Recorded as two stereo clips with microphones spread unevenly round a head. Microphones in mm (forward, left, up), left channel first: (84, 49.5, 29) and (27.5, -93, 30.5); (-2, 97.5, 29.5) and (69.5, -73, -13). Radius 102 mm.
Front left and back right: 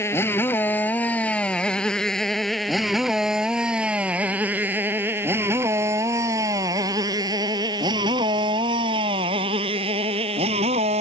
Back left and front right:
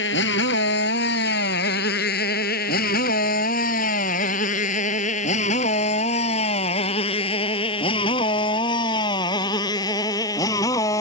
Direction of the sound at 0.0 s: 145° left.